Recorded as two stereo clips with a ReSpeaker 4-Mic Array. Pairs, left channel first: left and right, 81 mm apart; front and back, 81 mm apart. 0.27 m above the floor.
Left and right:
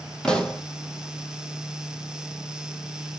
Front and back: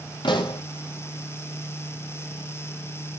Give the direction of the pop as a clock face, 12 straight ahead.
12 o'clock.